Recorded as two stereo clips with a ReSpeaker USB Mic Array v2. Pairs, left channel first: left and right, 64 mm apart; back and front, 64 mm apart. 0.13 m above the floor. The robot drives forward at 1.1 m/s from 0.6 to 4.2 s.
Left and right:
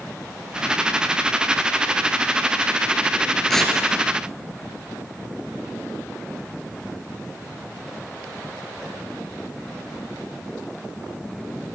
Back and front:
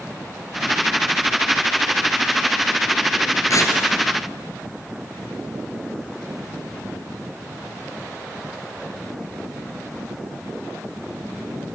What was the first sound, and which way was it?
Tearing paper, 170° left.